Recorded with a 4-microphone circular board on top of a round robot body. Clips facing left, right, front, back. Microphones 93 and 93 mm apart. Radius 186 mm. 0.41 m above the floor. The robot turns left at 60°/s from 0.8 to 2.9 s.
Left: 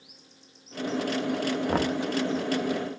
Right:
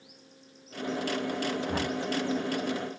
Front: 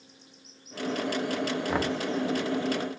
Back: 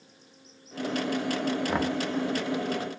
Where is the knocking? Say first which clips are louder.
Left 5 dB, back 1 dB; 95° left, 0.7 m; by 2.0 s 75° left, 0.7 m.